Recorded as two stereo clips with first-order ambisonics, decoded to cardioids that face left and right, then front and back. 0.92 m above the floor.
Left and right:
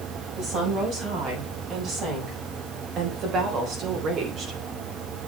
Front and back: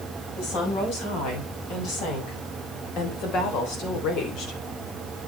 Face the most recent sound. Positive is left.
turn(degrees=-40)